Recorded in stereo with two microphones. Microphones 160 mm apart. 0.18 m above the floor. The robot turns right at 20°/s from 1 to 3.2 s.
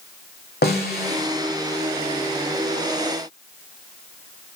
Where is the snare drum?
80° left, 1.8 m; by 1.3 s 85° left, 1.8 m.